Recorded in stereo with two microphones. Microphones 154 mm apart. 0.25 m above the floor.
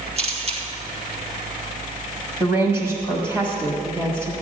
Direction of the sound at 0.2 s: 45° right (ahead or behind).